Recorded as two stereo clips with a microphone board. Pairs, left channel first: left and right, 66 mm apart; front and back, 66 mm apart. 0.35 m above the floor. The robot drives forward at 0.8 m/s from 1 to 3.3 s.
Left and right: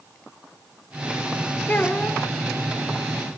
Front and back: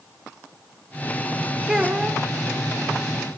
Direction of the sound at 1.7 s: 105° left.